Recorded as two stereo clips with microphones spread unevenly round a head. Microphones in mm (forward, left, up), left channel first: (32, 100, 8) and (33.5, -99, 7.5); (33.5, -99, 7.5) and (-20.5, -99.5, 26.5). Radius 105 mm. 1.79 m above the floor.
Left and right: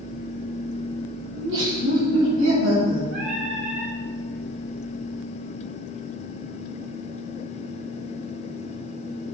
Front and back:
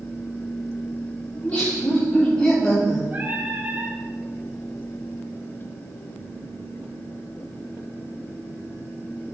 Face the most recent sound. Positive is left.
turn(degrees=-135)